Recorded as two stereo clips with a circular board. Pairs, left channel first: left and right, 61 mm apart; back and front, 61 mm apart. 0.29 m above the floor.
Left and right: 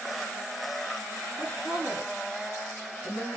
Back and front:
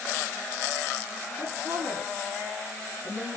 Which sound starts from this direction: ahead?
A woman speaking, at 1.4 s.